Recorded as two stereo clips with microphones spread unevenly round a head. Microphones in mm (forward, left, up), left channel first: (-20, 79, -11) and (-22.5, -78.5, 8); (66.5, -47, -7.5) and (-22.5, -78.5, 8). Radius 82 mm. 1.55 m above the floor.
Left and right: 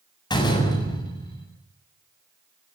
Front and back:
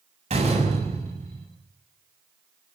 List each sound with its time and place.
0.3 s a door slam: 155° left, 7.5 m